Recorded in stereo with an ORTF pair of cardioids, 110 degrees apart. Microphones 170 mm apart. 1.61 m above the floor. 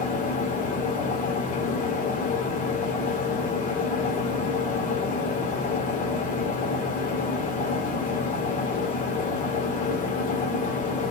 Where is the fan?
50° left, 1.0 m.